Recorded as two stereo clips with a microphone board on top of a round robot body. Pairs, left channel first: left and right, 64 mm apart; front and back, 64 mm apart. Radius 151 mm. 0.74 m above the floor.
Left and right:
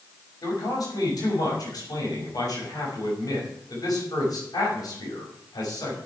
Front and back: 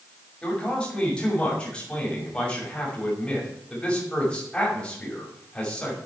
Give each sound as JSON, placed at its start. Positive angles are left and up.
{"t": 0.4, "sound": "a man speaking", "azimuth_deg": 75, "distance_m": 6.5}